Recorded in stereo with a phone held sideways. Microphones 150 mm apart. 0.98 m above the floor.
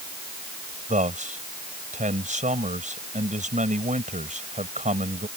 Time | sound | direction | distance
0.9 | a man speaking | 50° right (ahead or behind) | ?